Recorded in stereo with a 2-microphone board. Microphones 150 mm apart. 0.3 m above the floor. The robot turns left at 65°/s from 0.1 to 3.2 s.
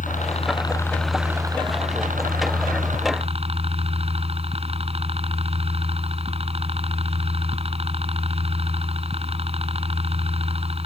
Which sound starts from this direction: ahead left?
A helicopter, at 0.0 s.